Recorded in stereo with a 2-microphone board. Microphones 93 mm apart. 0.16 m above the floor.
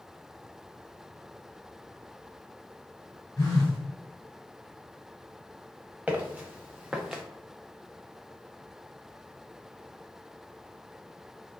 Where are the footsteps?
15° right (ahead or behind), 1.1 m; by 7.2 s 5° right (ahead or behind), 0.5 m.